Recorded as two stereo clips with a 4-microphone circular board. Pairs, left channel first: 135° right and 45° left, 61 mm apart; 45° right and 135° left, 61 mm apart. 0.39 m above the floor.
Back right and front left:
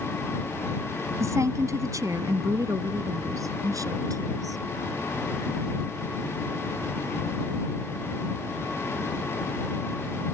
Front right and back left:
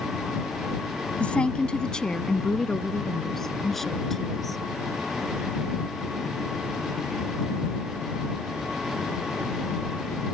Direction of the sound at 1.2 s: 25° left.